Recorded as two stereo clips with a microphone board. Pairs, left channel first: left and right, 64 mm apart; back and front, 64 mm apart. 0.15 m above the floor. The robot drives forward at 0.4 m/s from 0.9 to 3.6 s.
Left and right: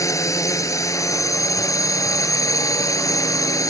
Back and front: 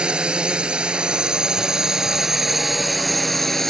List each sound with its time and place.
0.0 s a drone: 75° left; by 3.7 s 95° left